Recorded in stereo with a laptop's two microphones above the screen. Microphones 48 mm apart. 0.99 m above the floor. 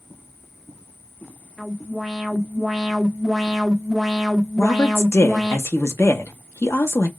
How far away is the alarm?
About 1.1 m.